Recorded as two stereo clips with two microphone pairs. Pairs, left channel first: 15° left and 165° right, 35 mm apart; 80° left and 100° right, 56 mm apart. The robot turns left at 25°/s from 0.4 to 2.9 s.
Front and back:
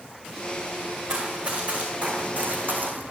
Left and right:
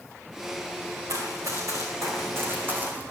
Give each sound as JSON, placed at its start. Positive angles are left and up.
{"t": 1.1, "sound": "running footsteps", "azimuth_deg": -105, "distance_m": 4.0}